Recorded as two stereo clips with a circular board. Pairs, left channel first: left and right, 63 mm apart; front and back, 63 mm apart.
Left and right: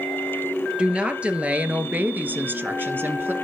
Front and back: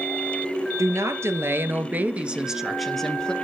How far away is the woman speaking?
About 2.5 m.